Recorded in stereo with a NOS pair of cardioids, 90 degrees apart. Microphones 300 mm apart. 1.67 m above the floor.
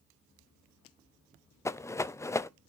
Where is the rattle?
10° left, 0.7 m.